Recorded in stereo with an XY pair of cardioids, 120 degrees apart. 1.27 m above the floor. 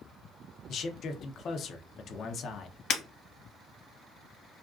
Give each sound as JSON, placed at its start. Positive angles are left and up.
{"t": 0.7, "sound": "a man speaking", "azimuth_deg": 50, "distance_m": 0.6}
{"t": 2.9, "sound": "breaking glass", "azimuth_deg": 65, "distance_m": 1.3}